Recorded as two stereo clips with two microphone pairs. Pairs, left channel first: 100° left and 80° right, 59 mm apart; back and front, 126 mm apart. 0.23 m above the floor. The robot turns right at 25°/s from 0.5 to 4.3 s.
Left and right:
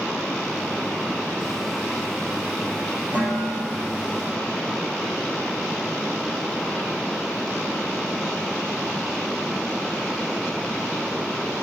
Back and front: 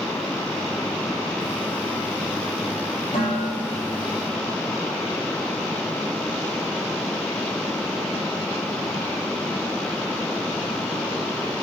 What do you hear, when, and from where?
3.1 s dishes clattering: 140° right, 4.5 m; by 4.0 s 120° right, 4.5 m